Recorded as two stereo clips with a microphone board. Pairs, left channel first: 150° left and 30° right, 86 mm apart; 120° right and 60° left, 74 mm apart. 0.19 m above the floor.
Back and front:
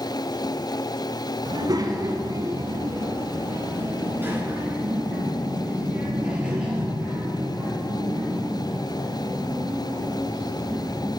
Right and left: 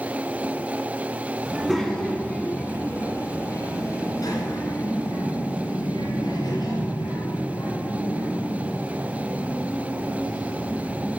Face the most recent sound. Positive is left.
turn(degrees=-115)